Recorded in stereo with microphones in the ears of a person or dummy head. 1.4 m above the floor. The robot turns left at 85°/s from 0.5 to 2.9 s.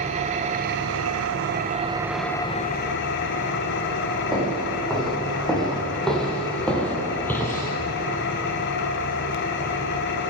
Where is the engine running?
40° right, 0.9 m; by 10.3 s 115° left, 0.9 m.